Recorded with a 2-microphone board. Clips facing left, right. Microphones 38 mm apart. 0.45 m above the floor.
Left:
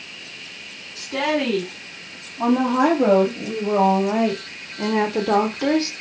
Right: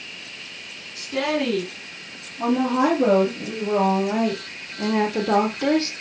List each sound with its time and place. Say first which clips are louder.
0.9 s a woman speaking: left 2 dB; 50° left (ahead or behind), 4 m; by 5.9 s centre (ahead or behind), 1.1 m